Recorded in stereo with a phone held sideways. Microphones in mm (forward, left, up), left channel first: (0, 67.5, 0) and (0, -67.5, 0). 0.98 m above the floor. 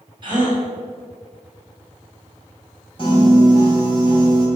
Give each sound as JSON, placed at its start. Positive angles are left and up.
{"t": 0.2, "sound": "a gasp", "side_deg": -35, "distance_m": 4.5}
{"t": 3.0, "sound": "a piano", "side_deg": 40, "distance_m": 4.5}